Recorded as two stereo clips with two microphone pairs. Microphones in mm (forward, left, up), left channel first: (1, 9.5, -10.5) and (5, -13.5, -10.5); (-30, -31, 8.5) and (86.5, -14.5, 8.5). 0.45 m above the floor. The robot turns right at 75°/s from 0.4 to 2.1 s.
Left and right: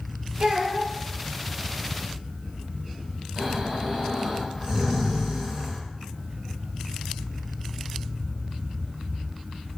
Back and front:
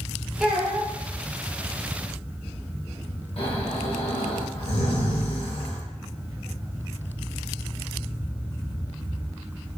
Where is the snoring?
145° right, 1.1 m.